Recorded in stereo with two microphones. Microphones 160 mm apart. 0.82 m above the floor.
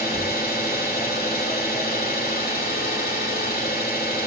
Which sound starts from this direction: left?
An engine running, at 0.0 s.